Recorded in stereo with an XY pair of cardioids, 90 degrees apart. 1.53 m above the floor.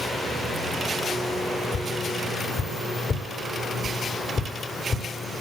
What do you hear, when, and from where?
1.7 s tapping: 50° left, 3.5 m